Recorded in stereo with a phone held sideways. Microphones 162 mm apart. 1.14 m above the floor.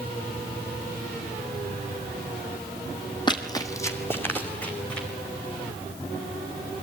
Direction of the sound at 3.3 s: 25° left (ahead or behind).